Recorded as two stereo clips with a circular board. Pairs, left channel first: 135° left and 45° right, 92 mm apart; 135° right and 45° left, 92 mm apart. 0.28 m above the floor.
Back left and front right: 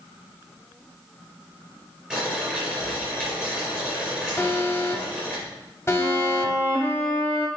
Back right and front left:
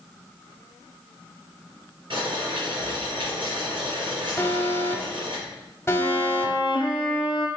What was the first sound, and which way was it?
Boiling, 35° left.